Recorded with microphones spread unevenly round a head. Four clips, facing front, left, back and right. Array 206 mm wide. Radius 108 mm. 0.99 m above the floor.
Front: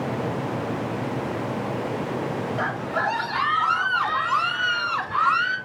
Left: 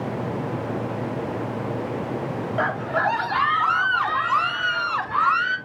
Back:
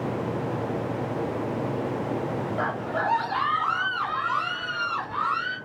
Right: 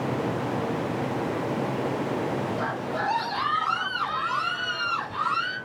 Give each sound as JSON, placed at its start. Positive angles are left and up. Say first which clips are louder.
{"t": 2.6, "sound": "a scream", "louder": "left 5 dB, front 1 dB", "azimuth_deg": 75, "distance_m": 2.5}